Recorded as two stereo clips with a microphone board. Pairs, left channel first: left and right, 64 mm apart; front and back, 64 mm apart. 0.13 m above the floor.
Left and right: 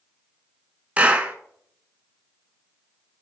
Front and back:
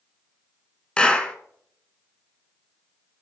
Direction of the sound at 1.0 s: 55° right.